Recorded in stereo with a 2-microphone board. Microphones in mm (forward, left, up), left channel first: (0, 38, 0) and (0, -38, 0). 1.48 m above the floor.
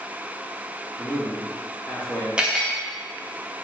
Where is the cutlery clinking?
10° right (ahead or behind), 0.6 m.